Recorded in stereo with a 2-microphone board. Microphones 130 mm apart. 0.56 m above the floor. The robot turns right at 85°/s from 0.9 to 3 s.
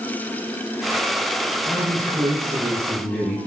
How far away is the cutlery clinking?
I don't hear cutlery clinking.